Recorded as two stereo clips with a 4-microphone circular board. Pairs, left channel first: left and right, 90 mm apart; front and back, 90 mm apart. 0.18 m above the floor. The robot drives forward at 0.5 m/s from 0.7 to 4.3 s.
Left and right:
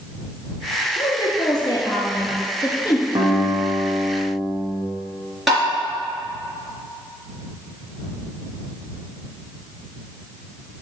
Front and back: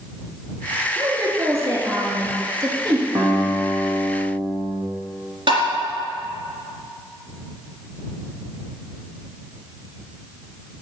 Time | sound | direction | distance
1.0 | a woman speaking | 115° left | 2.5 m
3.1 | a guitar | 130° right | 3 m
5.5 | tapping | straight behind | 3 m